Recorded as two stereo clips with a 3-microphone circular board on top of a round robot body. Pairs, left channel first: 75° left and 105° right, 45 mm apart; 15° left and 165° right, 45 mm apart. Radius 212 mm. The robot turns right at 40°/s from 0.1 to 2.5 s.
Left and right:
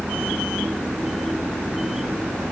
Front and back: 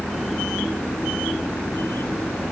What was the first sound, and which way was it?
Only background noise.